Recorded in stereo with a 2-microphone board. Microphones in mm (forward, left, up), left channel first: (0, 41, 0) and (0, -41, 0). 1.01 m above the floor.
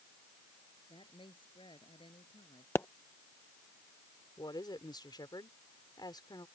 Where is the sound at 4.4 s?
60° left (ahead or behind).